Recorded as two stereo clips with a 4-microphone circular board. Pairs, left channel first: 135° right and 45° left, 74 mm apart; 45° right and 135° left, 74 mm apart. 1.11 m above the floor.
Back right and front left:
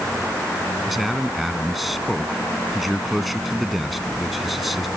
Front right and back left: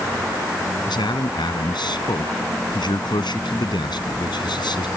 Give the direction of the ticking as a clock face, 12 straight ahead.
No ticking in this recording.